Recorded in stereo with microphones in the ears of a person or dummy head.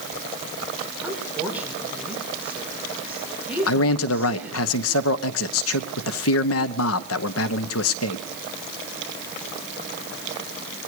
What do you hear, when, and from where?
1.0 s a woman speaking: 10° right (ahead or behind), 7 m
3.7 s a man speaking: 85° left, 1.2 m